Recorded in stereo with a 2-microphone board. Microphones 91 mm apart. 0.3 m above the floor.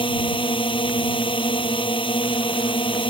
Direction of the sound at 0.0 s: 60° left (ahead or behind).